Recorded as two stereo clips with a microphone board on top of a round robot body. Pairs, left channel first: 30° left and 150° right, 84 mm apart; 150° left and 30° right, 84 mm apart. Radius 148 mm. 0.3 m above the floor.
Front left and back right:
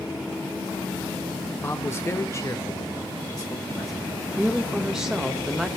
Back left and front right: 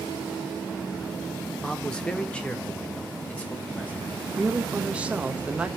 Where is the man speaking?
70° left, 1.0 m; by 4.3 s 80° left, 2.5 m.